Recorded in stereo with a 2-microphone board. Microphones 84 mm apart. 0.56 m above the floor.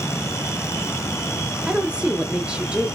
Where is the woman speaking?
15° right (ahead or behind), 0.6 m.